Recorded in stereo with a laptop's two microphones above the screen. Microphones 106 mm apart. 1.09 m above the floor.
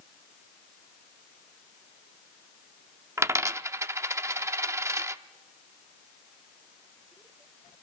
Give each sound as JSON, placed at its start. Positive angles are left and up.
{"t": 3.2, "sound": "a dropped coin", "side_deg": -25, "distance_m": 0.6}